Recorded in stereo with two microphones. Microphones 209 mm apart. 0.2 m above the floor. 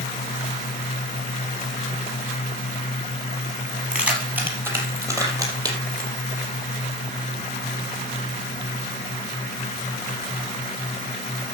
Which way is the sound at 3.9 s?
5° right (ahead or behind).